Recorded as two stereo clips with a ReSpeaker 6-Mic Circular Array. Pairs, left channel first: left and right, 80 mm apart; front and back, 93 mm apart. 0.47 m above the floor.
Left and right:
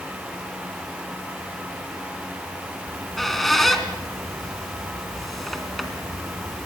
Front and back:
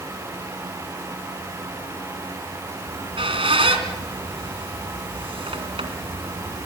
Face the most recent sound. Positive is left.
turn(degrees=180)